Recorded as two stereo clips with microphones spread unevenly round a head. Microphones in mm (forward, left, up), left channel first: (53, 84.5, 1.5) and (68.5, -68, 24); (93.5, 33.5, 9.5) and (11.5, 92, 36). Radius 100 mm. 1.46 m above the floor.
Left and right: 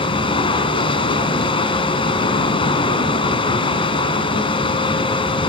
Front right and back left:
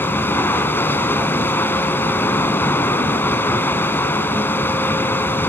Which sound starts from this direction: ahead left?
Running water, at 0.0 s.